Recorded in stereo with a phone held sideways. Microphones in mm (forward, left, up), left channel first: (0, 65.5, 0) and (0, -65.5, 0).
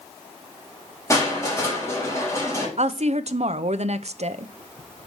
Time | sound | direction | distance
1.1 | crushing | 25° left (ahead or behind) | 3.5 m
2.8 | a woman speaking | 60° right (ahead or behind) | 0.6 m